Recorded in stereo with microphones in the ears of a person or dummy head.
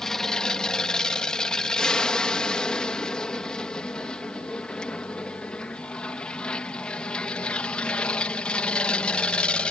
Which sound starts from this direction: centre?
An aircraft, at 0.0 s.